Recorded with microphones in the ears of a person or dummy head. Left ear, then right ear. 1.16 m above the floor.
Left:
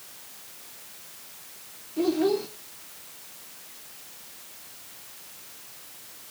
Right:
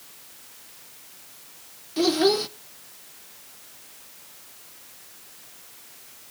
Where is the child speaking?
55° right (ahead or behind), 0.8 m.